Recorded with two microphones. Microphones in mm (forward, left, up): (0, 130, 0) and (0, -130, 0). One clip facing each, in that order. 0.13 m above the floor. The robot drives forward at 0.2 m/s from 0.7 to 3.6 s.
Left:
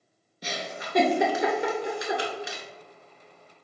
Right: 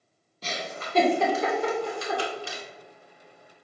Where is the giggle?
15° left (ahead or behind), 1.0 m; by 2.6 s 20° left (ahead or behind), 0.8 m.